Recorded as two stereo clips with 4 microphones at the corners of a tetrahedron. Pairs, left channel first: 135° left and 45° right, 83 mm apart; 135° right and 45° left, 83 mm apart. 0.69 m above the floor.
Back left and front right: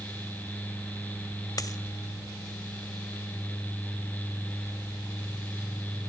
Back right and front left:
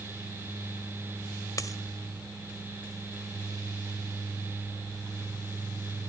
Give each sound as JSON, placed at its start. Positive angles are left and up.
{"t": 1.6, "sound": "a dropped coin", "azimuth_deg": 180, "distance_m": 1.5}